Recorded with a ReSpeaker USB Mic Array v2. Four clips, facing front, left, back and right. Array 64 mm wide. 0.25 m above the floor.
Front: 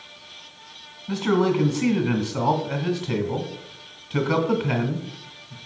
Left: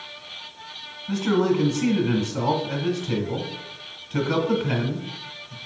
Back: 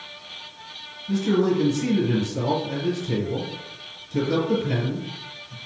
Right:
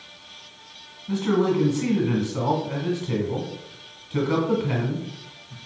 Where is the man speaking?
5° left, 2.0 m.